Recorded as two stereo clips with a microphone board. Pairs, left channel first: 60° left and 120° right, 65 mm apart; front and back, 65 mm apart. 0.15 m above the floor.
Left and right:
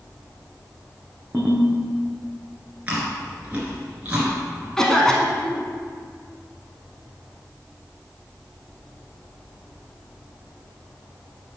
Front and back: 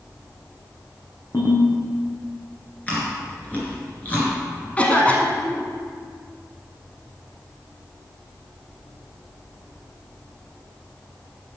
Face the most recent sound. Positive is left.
turn(degrees=-5)